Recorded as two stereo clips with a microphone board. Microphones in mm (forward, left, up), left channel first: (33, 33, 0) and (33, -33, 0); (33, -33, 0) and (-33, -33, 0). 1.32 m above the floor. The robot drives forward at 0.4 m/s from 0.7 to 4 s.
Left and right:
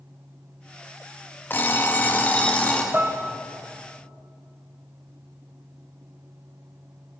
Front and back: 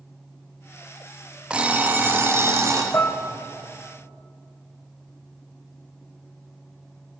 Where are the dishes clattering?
35° right, 0.7 m; by 3.2 s 40° right, 0.7 m.